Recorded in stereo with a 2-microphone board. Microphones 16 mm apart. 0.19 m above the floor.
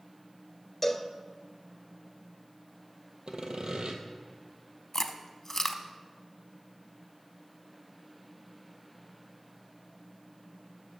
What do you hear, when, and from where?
0.8 s a cowbell: 20° left (ahead or behind), 0.7 m
3.3 s sawing: 85° right, 1.1 m
4.9 s chewing: 20° left (ahead or behind), 0.6 m